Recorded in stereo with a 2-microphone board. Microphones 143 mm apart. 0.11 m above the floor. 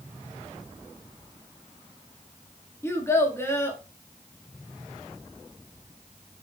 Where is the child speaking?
20° left (ahead or behind), 0.7 m.